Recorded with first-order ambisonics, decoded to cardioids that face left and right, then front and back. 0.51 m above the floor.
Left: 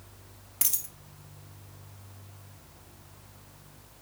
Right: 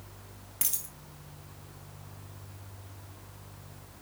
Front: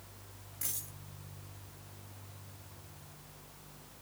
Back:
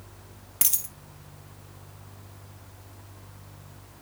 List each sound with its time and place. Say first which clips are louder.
0.6 s a dropped coin: left 3 dB, back 13 dB; 170° left, 1.0 m